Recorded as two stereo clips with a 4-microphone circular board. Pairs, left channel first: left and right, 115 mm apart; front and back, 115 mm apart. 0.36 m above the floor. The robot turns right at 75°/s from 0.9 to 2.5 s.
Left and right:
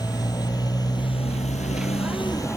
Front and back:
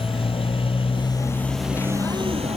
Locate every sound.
0.0 s a motorcycle: 35° left; by 2.6 s 155° left